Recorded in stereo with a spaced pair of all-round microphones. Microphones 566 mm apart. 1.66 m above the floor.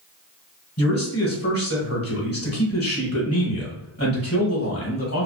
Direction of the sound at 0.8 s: 25° left (ahead or behind).